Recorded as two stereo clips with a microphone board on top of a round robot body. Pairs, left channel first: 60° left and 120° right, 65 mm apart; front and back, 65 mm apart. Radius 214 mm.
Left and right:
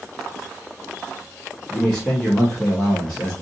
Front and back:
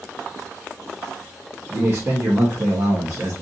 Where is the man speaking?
135° left, 1.2 m.